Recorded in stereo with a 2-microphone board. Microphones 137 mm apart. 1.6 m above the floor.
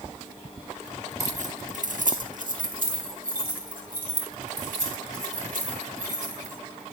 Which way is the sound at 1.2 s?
60° right (ahead or behind).